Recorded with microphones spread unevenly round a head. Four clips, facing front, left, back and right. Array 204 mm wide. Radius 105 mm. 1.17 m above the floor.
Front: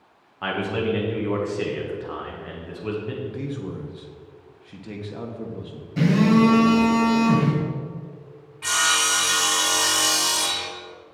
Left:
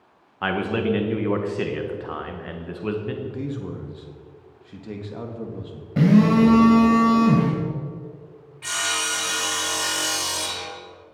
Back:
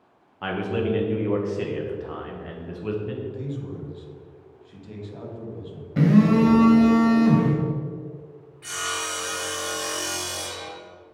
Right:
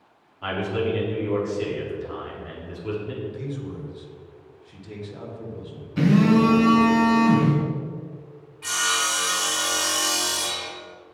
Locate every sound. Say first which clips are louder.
0.4 s a man speaking: left 2 dB, front 1 dB; 85° left, 1.4 m
3.2 s a man speaking: left 2 dB, front 2 dB; 50° left, 1.4 m
6.0 s a phone buzzing: left 2 dB, even; 105° left, 2 m
8.6 s sawing: right 2 dB, front 7 dB; 10° left, 2.5 m